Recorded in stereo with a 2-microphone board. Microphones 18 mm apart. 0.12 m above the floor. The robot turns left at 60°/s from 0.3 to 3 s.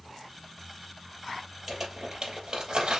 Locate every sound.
1.7 s crumpling: 10° right (ahead or behind), 3 m; by 3.0 s 60° right (ahead or behind), 3 m